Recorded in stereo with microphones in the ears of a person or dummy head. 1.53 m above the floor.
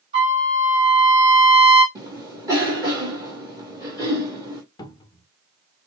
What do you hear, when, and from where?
0.1 s a trumpet: 30° right (ahead or behind), 2.5 m
1.9 s a cough: 20° right (ahead or behind), 1.7 m
4.8 s a cupboard door: 20° left (ahead or behind), 1.0 m